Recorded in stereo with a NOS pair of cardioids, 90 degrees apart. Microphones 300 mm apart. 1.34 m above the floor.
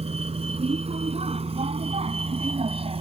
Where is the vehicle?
20° right.